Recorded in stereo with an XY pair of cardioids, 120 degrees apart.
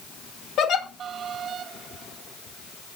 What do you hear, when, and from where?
0.6 s a giggle: 65° left, 2 m